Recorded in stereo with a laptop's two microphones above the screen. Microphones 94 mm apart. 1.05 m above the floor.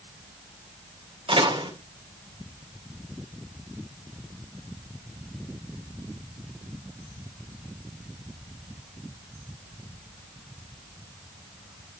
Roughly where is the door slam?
Right.